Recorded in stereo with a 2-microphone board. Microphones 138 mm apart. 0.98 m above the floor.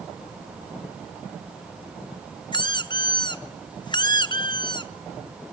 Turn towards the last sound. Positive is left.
turn(degrees=30)  # may be behind; listen again after turning